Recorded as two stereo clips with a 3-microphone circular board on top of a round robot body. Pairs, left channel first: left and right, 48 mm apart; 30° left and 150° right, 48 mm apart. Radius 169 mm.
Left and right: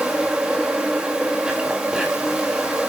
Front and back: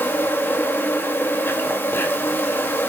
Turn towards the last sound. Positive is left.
turn(degrees=-15)